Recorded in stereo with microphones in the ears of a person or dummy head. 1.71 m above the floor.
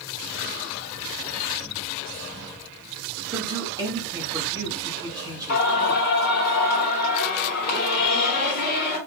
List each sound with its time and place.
3.3 s a man speaking: 20° right (ahead or behind), 1.4 m
5.5 s singing: 50° left (ahead or behind), 2.0 m